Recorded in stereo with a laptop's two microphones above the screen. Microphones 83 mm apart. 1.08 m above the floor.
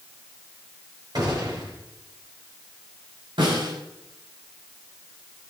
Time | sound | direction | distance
1.1 | a gunshot | 55° right (ahead or behind) | 6 m
3.4 | a snare drum | 75° right (ahead or behind) | 7 m